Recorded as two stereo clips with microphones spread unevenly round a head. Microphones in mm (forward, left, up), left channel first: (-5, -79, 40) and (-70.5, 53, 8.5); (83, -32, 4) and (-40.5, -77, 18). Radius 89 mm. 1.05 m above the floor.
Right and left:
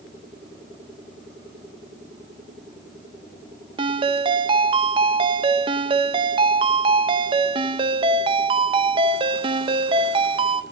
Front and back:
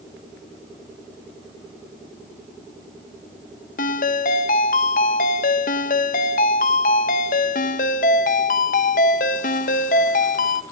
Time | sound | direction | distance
3.8 | a ringtone | 60° left | 0.7 m